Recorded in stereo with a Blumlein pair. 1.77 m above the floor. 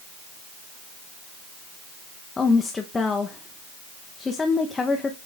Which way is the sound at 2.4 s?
15° left.